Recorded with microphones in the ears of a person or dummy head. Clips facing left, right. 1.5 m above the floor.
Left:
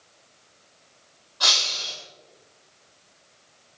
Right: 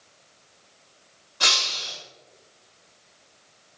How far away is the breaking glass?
About 8 m.